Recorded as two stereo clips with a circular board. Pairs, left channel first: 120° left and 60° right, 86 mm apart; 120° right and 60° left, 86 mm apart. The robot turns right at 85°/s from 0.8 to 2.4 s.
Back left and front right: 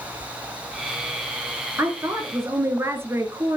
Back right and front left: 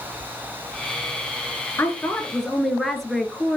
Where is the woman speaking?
85° right, 1.7 m; by 3.6 s 35° right, 1.7 m.